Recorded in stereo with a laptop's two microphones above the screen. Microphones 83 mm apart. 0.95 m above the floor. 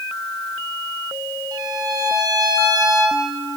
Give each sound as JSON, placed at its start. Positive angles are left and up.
{"t": 1.5, "sound": "a violin", "side_deg": -55, "distance_m": 3.0}